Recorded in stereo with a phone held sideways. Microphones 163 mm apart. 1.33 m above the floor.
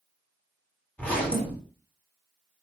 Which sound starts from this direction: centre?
A zipper, at 1.0 s.